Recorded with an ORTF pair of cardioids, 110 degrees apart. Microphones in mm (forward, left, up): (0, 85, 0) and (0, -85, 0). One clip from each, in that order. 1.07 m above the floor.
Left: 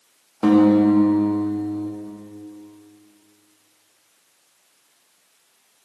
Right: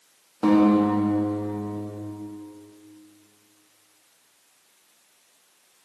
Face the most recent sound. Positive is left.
turn(degrees=20)